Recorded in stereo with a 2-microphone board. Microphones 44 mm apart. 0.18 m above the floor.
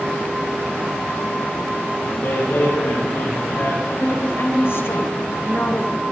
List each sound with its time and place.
2.0 s a man speaking: 45° left (ahead or behind), 5 m
4.0 s a woman speaking: 65° left (ahead or behind), 3 m